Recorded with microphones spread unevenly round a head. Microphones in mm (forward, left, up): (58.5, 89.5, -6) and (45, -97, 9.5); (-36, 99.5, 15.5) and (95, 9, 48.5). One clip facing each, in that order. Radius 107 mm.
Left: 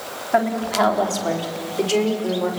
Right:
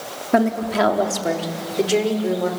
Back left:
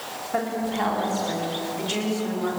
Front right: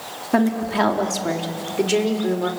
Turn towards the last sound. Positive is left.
turn(degrees=-10)